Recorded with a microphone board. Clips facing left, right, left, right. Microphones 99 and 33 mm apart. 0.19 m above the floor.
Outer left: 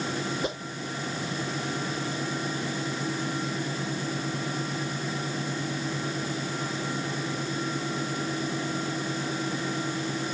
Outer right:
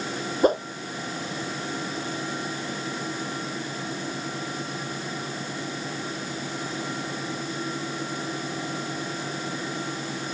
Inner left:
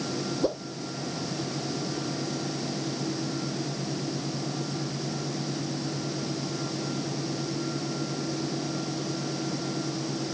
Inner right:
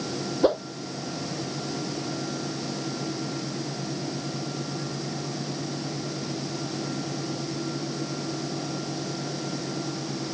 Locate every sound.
0.4 s a whoosh: 45° right (ahead or behind)